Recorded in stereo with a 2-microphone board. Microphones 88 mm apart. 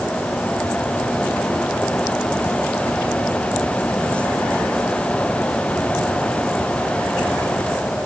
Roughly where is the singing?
No singing in this recording.